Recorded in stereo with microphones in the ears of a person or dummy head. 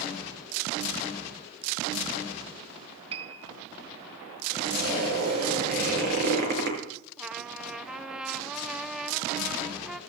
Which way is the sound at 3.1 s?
30° right (ahead or behind).